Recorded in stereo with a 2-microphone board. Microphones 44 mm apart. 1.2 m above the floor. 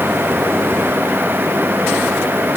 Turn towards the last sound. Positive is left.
No sound to turn to.